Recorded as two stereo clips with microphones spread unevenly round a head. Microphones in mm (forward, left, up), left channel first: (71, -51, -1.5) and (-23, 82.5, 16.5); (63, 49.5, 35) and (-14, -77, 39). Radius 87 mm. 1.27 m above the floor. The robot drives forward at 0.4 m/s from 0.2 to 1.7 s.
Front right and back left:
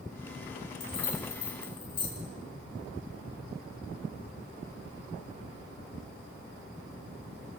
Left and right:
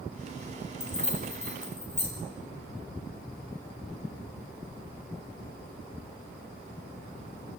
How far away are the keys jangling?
About 6 m.